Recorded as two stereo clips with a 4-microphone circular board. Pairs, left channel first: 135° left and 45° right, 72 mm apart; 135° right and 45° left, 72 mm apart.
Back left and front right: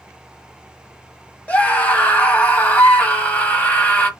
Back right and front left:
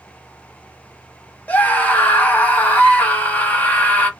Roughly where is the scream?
Behind.